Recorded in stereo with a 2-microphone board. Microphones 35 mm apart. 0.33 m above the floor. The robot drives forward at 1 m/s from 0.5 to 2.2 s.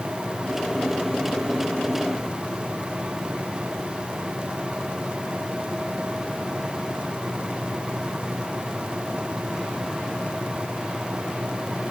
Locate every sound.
Only background noise.